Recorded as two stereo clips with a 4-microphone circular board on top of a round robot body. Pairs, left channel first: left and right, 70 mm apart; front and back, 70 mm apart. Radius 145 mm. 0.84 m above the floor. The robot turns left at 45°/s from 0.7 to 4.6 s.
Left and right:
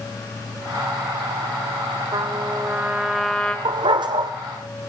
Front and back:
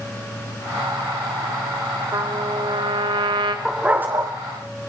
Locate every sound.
2.1 s a trumpet: 130° right, 1.3 m; by 3.5 s 165° left, 1.3 m
3.6 s a dog barking: 95° right, 1.0 m; by 4.3 s 125° right, 1.0 m